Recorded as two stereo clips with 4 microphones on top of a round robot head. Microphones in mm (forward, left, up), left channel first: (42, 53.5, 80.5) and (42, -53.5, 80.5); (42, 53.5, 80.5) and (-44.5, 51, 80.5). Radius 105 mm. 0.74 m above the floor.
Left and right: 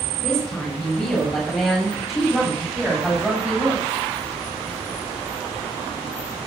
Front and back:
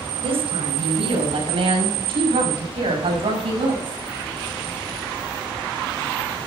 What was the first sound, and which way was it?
A woman speaking, 175° left.